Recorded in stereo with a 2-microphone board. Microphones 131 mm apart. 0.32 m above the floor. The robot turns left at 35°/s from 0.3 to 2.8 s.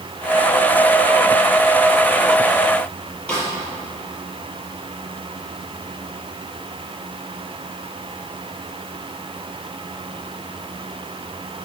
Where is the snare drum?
10° left (ahead or behind), 5 m.